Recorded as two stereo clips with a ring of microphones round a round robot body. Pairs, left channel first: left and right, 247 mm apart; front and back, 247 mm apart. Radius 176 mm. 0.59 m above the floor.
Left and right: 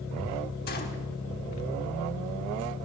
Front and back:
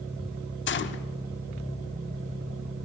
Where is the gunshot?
35° left, 1.2 m.